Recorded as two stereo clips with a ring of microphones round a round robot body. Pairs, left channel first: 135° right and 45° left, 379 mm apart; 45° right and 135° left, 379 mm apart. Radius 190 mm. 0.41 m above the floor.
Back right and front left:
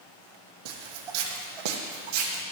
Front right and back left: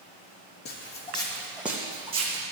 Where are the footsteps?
20° left, 1.0 m; by 2.4 s 65° left, 1.3 m.